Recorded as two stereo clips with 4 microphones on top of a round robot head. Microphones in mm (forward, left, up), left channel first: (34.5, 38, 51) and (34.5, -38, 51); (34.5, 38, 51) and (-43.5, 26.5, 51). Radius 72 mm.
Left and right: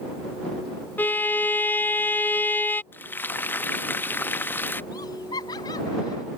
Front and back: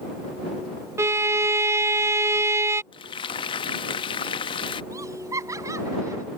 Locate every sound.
1.0 s a violin: 150° left
2.9 s frying: 25° left
4.9 s laughter: 140° left